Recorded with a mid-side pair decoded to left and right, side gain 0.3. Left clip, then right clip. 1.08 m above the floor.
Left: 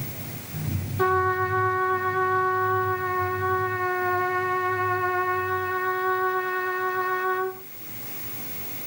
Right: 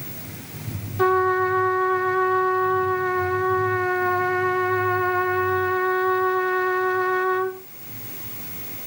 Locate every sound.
1.0 s a trumpet: 25° right, 0.6 m